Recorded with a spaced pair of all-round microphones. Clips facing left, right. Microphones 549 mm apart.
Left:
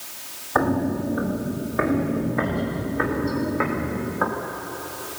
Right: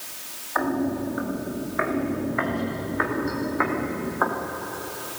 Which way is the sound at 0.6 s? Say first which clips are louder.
Left 2 dB; 65° left (ahead or behind).